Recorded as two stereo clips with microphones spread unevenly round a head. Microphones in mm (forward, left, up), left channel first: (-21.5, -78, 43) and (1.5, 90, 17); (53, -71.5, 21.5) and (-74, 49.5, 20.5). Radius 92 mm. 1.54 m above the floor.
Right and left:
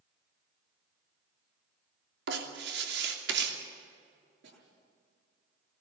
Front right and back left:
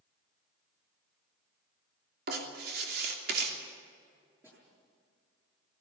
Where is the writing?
100° left, 3 m.